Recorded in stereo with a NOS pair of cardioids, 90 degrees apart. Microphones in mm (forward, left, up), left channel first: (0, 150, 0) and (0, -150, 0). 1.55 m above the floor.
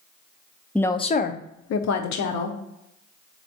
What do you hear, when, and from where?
0.8 s a woman speaking: 5° left, 0.6 m; by 2.6 s 75° left, 1.1 m